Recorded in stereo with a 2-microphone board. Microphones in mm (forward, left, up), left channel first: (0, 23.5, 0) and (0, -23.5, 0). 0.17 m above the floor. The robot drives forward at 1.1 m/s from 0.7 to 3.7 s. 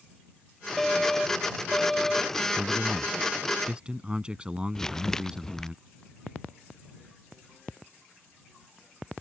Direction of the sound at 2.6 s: 20° right (ahead or behind).